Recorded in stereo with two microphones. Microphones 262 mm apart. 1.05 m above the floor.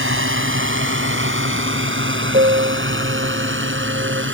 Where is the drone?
50° right (ahead or behind).